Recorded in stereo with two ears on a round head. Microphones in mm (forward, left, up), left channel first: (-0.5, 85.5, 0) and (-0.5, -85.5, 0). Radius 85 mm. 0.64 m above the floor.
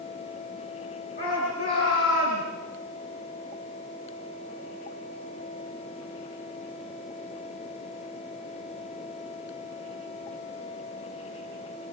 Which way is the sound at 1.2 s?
45° left (ahead or behind).